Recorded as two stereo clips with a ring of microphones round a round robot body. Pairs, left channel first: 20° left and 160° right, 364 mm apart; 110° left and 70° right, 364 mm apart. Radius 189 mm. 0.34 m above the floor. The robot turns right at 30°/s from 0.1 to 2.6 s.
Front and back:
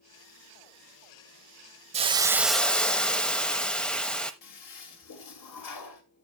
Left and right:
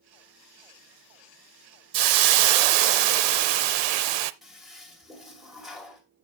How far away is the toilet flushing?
About 2 m.